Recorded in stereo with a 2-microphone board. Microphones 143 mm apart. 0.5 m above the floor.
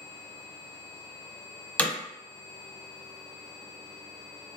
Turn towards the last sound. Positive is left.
turn(degrees=10)  # may be behind; listen again after turning